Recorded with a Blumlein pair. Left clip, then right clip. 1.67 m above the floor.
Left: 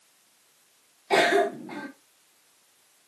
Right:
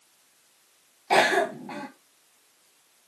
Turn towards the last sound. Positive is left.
turn(degrees=-15)